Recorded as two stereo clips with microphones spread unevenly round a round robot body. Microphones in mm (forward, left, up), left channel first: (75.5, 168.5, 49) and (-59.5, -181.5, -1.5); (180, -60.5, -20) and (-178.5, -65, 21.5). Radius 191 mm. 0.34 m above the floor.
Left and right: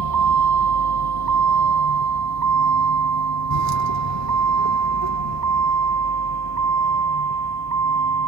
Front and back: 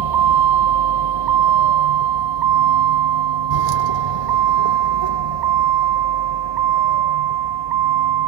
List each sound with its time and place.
0.0 s a vehicle: 160° right; by 8.3 s 165° right